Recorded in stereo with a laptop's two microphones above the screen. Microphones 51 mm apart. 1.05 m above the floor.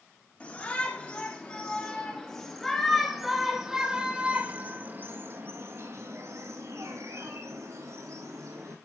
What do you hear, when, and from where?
0.4 s a shout: 25° left (ahead or behind), 3.5 m; by 8.8 s 75° right (ahead or behind), 3.5 m